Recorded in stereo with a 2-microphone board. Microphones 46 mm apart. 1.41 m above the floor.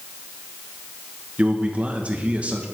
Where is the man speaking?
30° right (ahead or behind), 1.9 m.